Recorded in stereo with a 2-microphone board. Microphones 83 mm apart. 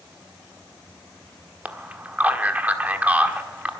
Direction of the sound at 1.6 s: 20° right (ahead or behind).